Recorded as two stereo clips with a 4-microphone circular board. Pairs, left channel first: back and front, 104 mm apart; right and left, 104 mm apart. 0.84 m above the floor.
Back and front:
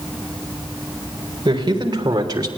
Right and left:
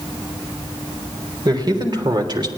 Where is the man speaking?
45° left, 4 m; by 2.5 s 50° left, 2.5 m.